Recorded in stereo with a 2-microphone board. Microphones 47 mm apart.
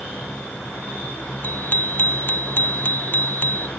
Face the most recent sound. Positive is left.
turn(degrees=45)  # may be behind; listen again after turning